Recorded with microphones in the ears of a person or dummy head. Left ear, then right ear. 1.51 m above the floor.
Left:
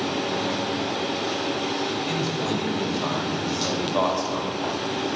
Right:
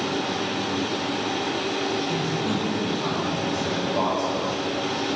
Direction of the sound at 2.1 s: 80° left.